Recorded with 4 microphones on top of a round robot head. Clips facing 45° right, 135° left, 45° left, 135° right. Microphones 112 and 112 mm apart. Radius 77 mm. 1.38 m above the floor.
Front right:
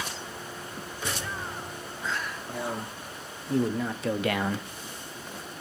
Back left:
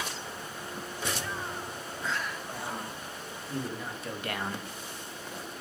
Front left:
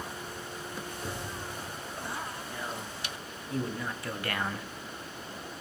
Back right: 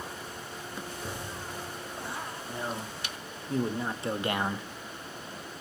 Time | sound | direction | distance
2.5 | a man speaking | 75° right | 3 m